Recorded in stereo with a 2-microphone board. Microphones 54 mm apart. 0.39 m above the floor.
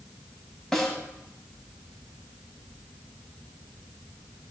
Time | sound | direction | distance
0.7 | a snare drum | 10° left (ahead or behind) | 3 m